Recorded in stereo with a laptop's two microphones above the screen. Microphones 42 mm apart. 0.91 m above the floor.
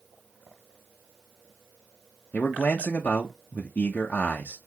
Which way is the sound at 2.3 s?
40° left (ahead or behind).